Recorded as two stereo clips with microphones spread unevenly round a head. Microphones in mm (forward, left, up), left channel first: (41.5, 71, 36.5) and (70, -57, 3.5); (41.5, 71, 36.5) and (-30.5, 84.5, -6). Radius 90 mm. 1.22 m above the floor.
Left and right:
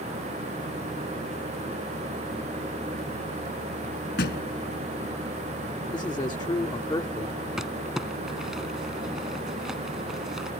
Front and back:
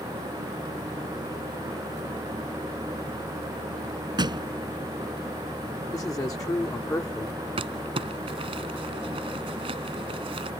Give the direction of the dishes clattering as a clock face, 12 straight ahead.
I don't hear dishes clattering.